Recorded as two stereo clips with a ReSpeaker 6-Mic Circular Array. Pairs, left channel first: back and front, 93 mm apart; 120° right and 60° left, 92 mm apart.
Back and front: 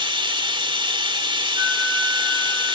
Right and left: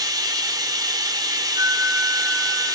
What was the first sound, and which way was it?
Running water, 20° left.